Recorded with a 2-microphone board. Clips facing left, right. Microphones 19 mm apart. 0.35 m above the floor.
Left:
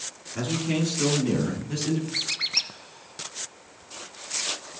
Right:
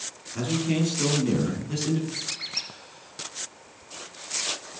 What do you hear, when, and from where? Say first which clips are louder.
0.3 s a man speaking: right 1 dB; 5° left (ahead or behind), 4 m; by 2.0 s 5° right (ahead or behind), 3.5 m
2.1 s a squeak: left 6 dB; 30° left (ahead or behind), 1.2 m